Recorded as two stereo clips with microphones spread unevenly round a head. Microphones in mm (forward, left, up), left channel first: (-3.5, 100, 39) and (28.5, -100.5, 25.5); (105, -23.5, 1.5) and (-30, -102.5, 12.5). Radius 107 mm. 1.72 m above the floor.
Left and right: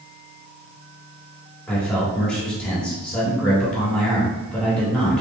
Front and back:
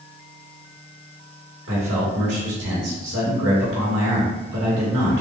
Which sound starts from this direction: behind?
A man speaking, at 1.7 s.